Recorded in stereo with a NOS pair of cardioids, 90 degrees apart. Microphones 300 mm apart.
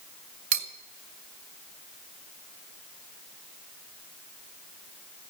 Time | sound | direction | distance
0.5 | cutlery clinking | 65° right | 2.5 m